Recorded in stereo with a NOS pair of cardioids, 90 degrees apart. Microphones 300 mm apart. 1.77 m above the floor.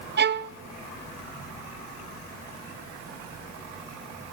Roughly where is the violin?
Ahead right.